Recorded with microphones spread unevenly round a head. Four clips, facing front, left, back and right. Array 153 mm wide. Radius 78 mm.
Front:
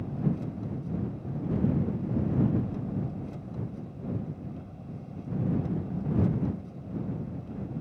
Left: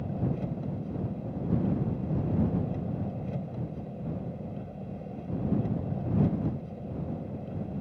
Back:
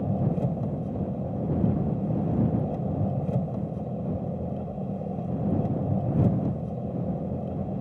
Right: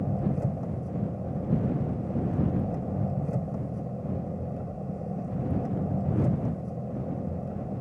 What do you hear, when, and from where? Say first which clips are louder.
0.0 s an engine running: right 3 dB, back 4 dB; 165° right